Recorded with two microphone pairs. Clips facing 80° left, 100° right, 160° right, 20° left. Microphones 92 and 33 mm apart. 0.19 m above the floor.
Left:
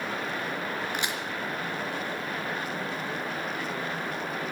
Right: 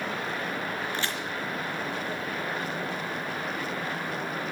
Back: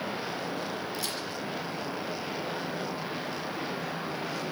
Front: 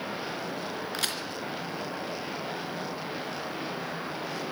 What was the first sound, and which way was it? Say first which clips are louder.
A crack: even, front 2 dB; 10° left.